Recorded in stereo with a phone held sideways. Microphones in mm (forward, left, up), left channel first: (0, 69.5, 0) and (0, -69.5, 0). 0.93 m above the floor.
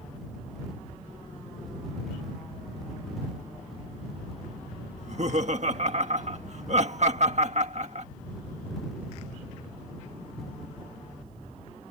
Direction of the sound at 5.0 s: 55° right (ahead or behind).